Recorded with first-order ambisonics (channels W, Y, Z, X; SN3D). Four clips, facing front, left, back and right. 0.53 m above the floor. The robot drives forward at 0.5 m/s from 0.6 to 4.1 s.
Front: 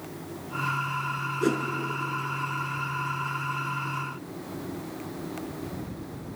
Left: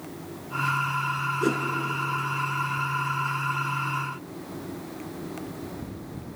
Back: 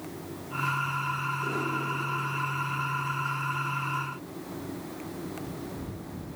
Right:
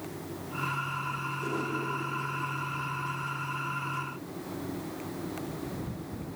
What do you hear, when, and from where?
1.4 s a whoosh: 40° left, 4 m